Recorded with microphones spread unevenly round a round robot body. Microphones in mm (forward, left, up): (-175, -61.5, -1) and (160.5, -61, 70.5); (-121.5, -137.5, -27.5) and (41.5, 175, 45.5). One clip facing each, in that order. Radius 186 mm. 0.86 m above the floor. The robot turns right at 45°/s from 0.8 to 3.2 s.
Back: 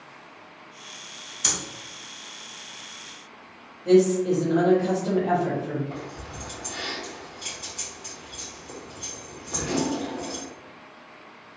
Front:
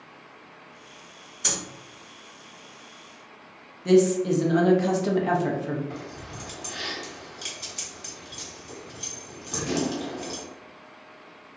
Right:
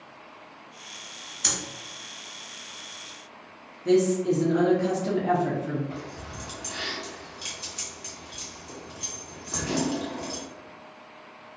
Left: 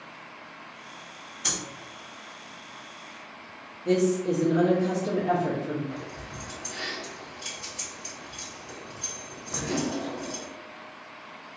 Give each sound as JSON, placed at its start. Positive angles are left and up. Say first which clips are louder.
{"t": 1.4, "sound": "breathing", "louder": "front 1 dB, right 1 dB", "azimuth_deg": -125, "distance_m": 1.6}
{"t": 3.9, "sound": "a woman speaking", "louder": "back 1 dB, right 2 dB", "azimuth_deg": -45, "distance_m": 0.9}
{"t": 5.9, "sound": "keys jangling", "louder": "back 1 dB, even", "azimuth_deg": -55, "distance_m": 1.5}